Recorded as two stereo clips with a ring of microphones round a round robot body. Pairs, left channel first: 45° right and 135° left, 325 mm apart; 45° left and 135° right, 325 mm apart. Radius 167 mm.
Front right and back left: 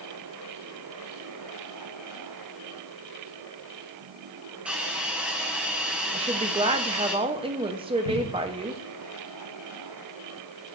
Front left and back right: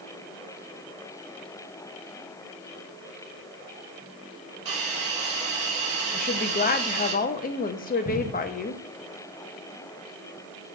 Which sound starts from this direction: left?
A woman speaking, at 6.1 s.